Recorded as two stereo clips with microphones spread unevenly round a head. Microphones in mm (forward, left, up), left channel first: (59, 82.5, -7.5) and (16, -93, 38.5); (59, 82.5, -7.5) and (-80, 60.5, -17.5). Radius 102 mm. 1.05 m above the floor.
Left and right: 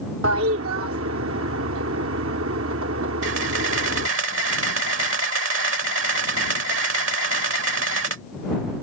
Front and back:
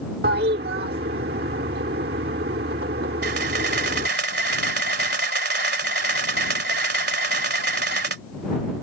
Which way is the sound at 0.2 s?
130° right.